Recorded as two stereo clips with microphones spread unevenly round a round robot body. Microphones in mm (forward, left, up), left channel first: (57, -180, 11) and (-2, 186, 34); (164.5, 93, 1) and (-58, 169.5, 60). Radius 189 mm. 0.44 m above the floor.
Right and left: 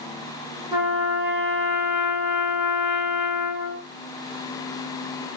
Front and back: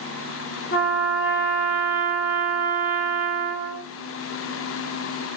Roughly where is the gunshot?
I don't hear a gunshot.